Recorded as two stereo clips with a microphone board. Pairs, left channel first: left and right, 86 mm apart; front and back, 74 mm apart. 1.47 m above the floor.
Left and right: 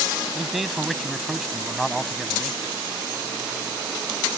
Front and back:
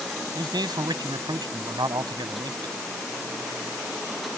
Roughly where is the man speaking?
Behind.